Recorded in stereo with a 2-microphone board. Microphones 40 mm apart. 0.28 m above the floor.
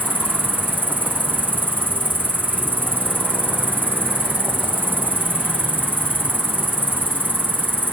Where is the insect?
60° right (ahead or behind).